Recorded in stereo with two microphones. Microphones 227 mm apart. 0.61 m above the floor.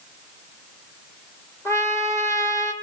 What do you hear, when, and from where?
1.6 s a trumpet: 15° left (ahead or behind), 1.8 m